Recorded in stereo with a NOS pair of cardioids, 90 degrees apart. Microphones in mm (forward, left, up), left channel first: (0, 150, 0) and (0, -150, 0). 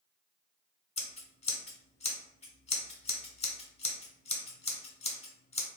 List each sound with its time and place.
1.0 s scissors: 20° left, 1.1 m